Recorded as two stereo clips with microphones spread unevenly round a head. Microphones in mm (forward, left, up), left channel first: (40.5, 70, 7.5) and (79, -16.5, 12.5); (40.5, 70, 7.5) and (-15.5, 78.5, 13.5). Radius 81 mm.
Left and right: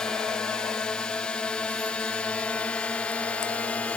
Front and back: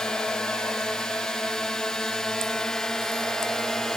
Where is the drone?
45° left; by 4.0 s 55° left.